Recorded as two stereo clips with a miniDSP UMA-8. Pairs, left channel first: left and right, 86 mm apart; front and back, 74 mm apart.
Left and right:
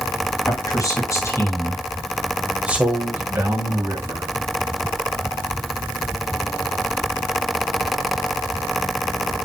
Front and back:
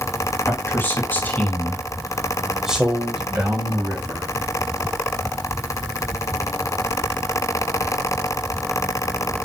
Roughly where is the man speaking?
Ahead left.